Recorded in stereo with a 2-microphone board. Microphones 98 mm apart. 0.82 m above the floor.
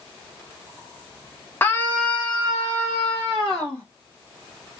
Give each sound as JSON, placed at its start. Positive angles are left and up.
{"t": 1.6, "sound": "a scream", "side_deg": 20, "distance_m": 0.6}